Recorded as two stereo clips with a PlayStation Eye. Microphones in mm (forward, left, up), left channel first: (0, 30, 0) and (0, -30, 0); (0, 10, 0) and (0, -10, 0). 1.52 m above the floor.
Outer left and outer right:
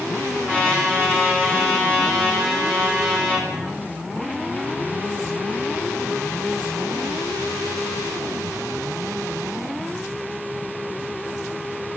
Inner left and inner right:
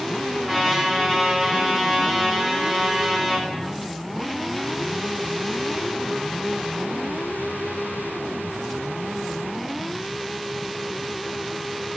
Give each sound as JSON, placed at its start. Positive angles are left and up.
{"t": 0.5, "sound": "a trumpet", "side_deg": 20, "distance_m": 4.5}